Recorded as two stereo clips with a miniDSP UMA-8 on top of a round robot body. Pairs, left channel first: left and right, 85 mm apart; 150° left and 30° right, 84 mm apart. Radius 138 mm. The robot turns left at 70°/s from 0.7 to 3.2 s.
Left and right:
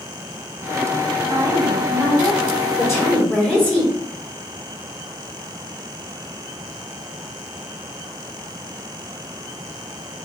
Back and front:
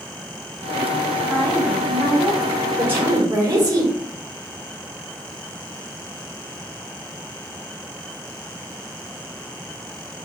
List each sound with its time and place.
1.3 s a woman speaking: 125° right, 2 m; by 2.5 s 155° left, 2 m
2.8 s a woman speaking: 40° left, 2.5 m; by 3.9 s 10° left, 2.5 m